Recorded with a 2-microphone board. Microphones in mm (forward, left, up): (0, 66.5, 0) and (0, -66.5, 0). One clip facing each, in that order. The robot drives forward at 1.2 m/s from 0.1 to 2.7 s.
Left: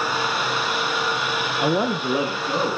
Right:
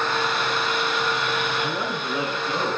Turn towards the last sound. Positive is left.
turn(degrees=15)  # may be behind; listen again after turning